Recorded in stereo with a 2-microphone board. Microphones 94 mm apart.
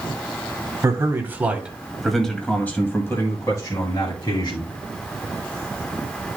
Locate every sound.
0.8 s a man speaking: 30° right (ahead or behind), 1.6 m; by 4.7 s 50° left (ahead or behind), 2 m